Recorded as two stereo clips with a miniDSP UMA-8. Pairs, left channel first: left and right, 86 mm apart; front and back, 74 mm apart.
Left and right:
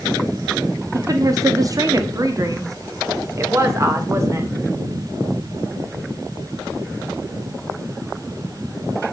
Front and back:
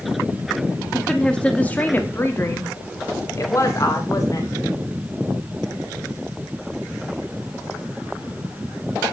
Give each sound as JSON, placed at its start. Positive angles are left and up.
{"t": 0.9, "sound": "a woman speaking", "azimuth_deg": -85, "distance_m": 1.2}